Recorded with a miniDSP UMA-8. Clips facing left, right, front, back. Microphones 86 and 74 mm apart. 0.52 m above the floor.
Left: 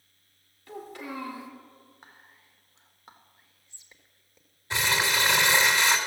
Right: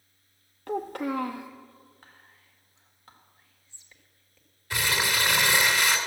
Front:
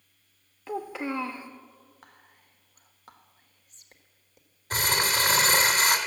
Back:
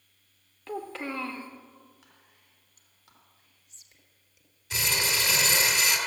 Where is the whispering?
25° left, 1.3 m.